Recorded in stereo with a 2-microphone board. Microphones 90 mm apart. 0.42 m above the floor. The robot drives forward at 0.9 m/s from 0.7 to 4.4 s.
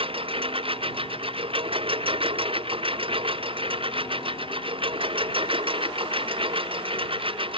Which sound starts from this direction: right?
A lawn mower, at 0.0 s.